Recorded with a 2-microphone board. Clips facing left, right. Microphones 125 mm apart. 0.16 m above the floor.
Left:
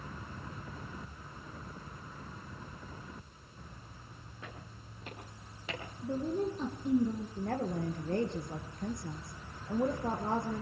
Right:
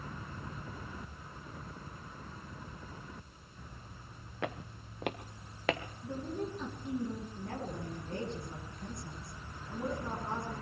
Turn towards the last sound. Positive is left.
turn(degrees=60)  # may be behind; listen again after turning